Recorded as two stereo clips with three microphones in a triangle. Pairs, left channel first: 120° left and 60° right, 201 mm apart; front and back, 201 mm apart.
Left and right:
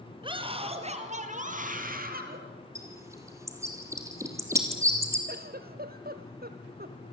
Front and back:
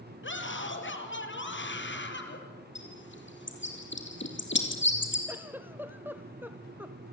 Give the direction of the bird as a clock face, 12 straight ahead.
11 o'clock.